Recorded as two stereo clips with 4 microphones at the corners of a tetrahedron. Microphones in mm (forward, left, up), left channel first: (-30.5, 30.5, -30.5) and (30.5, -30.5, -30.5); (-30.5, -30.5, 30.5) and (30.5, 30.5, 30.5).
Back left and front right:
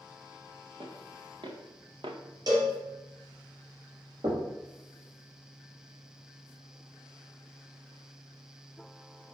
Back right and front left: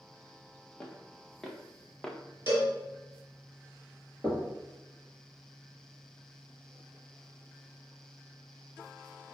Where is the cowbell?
15° right, 2.5 m.